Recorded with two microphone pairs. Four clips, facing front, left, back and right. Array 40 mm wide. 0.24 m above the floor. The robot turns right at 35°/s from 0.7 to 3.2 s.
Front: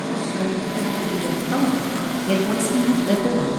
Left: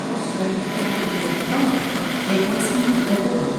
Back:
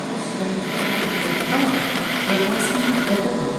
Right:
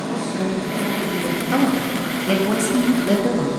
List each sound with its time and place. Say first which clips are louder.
0.1 s a woman speaking: even, front 2 dB; 30° right, 4 m; by 1.5 s 5° right, 4 m
1.5 s a woman speaking: right 2 dB, back 1 dB; 130° right, 1.0 m; by 3.5 s 75° right, 1.0 m